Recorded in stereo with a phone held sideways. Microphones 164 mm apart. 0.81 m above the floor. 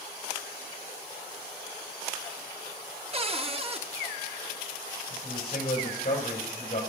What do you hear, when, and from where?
3.1 s a cupboard door: 35° right (ahead or behind), 0.6 m
5.1 s a man speaking: 50° left (ahead or behind), 5 m